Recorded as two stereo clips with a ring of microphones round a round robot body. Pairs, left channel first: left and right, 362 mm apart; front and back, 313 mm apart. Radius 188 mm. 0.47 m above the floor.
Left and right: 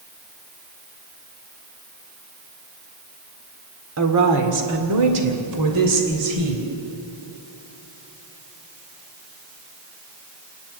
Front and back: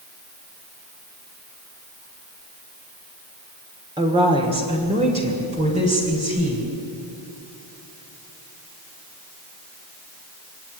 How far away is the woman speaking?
About 1.8 m.